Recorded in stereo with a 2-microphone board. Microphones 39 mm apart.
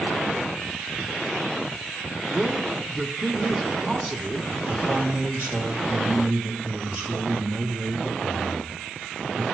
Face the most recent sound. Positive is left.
turn(degrees=-30)  # may be behind; listen again after turning